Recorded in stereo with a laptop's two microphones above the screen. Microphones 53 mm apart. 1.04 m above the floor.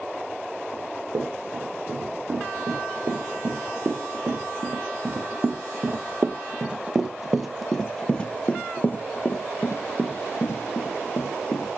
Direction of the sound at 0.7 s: 65° right (ahead or behind).